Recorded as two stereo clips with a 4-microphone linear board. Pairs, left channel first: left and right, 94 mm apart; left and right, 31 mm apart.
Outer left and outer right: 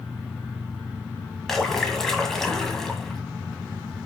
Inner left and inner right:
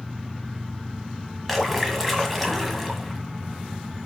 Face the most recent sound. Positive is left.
turn(degrees=5)  # may be behind; listen again after turning